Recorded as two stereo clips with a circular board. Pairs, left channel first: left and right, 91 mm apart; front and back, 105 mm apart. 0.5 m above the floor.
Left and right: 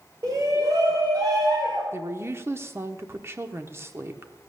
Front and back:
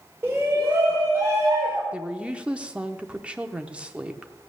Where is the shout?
120° right, 1.6 m.